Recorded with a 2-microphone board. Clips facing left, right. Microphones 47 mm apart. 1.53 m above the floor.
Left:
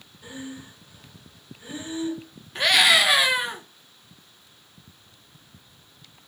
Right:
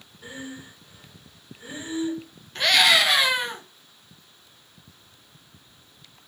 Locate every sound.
0.2 s breathing: 25° right (ahead or behind), 1.6 m
2.5 s a scream: 10° left (ahead or behind), 1.0 m